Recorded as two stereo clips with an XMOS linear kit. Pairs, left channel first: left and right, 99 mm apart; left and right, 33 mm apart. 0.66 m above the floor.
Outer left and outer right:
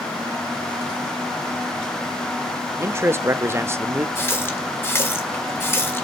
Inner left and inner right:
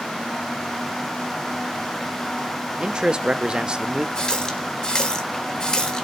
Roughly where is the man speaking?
Right.